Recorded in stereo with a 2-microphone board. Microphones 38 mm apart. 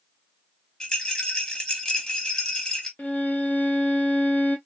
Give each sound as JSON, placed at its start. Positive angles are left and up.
{"t": 0.8, "sound": "a rattle", "side_deg": 20, "distance_m": 1.0}
{"t": 3.0, "sound": "a violin", "side_deg": 50, "distance_m": 0.6}